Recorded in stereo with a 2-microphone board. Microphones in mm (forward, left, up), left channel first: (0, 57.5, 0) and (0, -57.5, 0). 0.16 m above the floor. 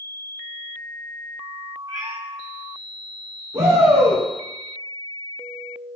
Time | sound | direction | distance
1.9 | a cat meowing | 30° right (ahead or behind) | 2 m
3.5 | a shout | 30° right (ahead or behind) | 2.0 m